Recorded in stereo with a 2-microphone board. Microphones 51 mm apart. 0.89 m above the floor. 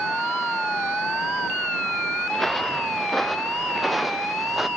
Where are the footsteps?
5° left (ahead or behind); by 4.7 s 5° right (ahead or behind).